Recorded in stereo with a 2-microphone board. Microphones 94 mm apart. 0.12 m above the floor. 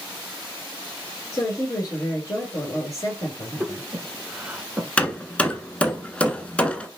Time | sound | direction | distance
1.3 | a woman speaking | 40° left (ahead or behind) | 1.7 m
3.6 | breathing | 10° right (ahead or behind) | 1.2 m
5.0 | hammering | 10° left (ahead or behind) | 0.8 m